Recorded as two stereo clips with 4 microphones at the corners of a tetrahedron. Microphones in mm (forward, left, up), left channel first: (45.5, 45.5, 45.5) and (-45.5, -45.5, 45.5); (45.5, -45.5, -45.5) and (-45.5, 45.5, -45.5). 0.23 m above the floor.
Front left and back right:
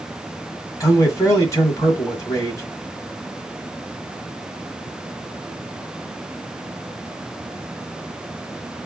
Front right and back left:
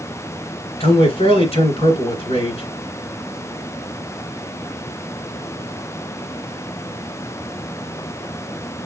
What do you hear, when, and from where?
0.8 s a man speaking: 15° right, 1.9 m